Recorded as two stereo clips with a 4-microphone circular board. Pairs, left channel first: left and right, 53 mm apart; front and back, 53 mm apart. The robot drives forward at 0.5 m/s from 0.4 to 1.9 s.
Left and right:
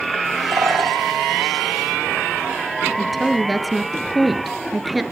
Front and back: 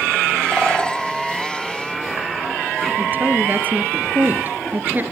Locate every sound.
0.5 s a bird: 85° right, 1.8 m; by 1.0 s 90° right, 1.8 m
3.0 s a woman speaking: straight behind, 1.3 m